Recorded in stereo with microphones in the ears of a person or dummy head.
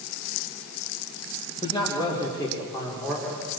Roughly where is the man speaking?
Left.